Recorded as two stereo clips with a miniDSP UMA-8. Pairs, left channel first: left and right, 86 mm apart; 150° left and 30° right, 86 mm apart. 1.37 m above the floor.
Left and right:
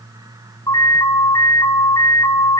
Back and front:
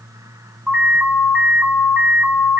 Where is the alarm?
45° left, 7.5 m.